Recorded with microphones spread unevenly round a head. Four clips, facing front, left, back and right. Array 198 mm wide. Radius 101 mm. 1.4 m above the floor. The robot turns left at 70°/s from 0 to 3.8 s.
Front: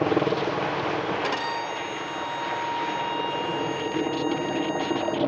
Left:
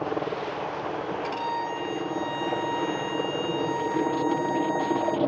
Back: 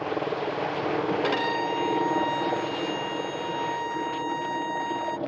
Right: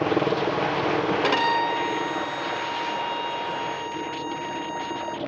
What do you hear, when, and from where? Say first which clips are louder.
0.0 s a helicopter: right 6 dB, front 5 dB; 40° right; by 5.3 s 55° left
1.2 s a violin: right 7 dB, back 2 dB; 100° right; by 5.2 s 85° left